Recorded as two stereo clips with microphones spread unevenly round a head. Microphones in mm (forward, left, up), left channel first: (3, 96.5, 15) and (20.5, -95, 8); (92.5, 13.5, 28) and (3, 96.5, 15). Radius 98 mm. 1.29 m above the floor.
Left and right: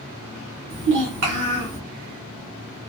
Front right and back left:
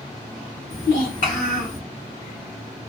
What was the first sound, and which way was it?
A child speaking, 65° right.